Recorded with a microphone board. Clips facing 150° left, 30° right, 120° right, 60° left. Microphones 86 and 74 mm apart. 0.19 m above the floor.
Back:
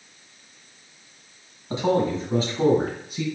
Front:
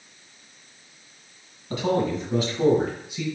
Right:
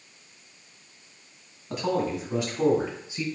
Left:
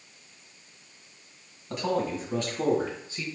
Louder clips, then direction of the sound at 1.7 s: Back 2 dB, right 1 dB; 155° left.